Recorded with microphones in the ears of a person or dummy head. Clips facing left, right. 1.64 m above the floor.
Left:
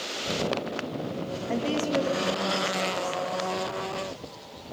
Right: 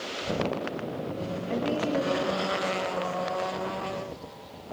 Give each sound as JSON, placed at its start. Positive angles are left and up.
{"t": 1.5, "sound": "a woman speaking", "side_deg": 60, "distance_m": 3.0}